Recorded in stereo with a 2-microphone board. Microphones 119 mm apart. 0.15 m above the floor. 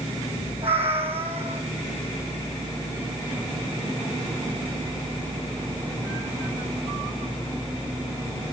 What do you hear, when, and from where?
0.6 s a cat meowing: 55° right (ahead or behind), 4 m